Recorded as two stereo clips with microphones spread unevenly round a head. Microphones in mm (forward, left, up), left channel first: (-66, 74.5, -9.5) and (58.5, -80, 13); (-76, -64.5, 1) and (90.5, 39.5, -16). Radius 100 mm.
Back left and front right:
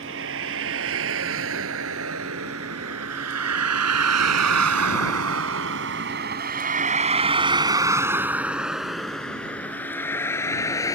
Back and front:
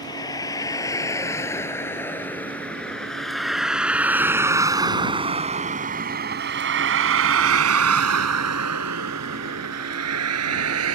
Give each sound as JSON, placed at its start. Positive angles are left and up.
{"t": 0.0, "sound": "a vehicle", "azimuth_deg": -75}